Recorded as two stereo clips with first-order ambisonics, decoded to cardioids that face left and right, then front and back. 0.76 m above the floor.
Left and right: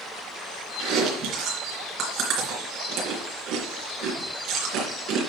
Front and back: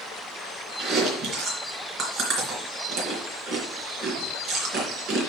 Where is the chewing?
135° right, 3 m.